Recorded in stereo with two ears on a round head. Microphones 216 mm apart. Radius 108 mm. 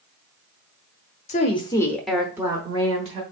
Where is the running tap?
I don't hear a running tap.